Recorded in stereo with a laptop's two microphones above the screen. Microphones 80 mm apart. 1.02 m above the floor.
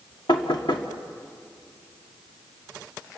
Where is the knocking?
75° left (ahead or behind), 1.7 m.